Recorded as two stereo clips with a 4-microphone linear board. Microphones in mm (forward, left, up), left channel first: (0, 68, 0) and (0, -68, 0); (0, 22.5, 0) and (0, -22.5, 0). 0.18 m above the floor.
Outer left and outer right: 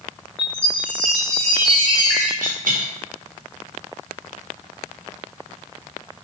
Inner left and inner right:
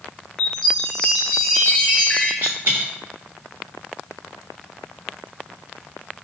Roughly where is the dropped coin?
Right.